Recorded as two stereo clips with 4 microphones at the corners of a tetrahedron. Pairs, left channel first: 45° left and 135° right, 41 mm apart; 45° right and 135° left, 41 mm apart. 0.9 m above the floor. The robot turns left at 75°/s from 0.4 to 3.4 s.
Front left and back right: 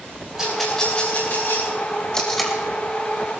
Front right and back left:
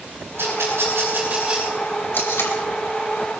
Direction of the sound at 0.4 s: 145° left.